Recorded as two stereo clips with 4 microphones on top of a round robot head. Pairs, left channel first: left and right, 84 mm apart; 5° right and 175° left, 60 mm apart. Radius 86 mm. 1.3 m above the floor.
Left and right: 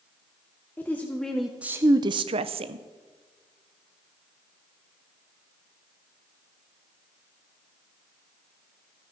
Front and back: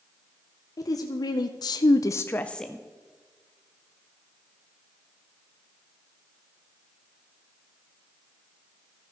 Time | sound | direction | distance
0.8 | a woman speaking | 20° left | 1.0 m